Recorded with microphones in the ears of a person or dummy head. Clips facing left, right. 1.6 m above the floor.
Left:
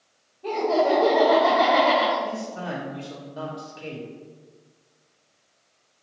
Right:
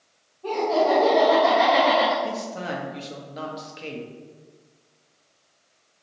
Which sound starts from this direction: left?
Laughter, at 0.4 s.